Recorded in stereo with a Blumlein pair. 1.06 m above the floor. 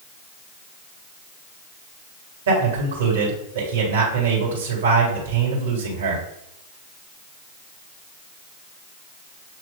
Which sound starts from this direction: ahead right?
A man speaking, at 2.5 s.